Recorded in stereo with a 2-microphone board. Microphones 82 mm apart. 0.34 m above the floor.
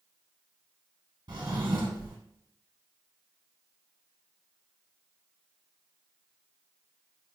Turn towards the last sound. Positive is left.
turn(degrees=-65)  # may be behind; listen again after turning